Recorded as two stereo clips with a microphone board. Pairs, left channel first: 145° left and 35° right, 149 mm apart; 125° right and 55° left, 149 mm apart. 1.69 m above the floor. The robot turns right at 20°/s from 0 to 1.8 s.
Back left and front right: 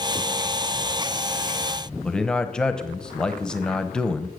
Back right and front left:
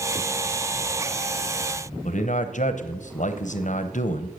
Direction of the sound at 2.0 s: 130° right.